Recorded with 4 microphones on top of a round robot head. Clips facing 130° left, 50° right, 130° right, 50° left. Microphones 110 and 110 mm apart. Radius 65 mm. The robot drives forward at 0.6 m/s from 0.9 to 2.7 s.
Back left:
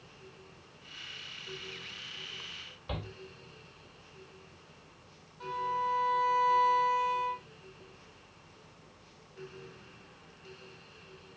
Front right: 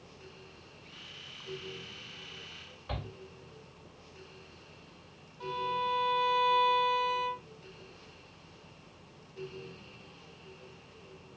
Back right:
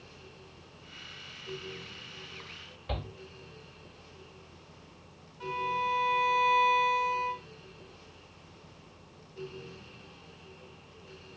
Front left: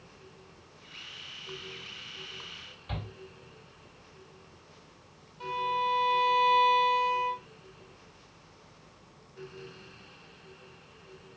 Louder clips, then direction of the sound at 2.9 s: Even, back right 3 dB; 160° right.